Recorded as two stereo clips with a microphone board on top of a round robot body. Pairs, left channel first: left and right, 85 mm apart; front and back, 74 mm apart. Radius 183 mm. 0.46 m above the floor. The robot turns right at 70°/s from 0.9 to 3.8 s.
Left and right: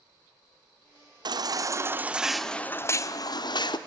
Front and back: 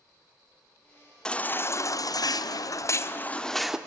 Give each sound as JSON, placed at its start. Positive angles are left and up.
{"t": 1.2, "sound": "a baby crying", "azimuth_deg": -75, "distance_m": 1.2}